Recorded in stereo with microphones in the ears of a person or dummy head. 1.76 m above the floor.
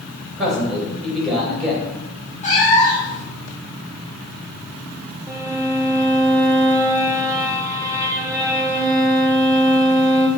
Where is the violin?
20° right (ahead or behind), 0.7 m.